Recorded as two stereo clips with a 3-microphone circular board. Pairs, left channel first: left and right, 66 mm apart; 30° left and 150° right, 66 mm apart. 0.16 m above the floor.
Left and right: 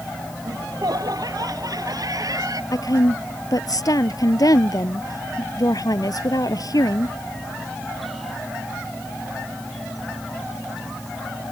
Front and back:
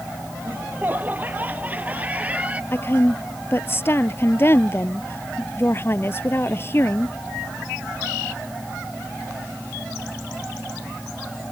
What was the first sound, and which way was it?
Laughter, 90° right.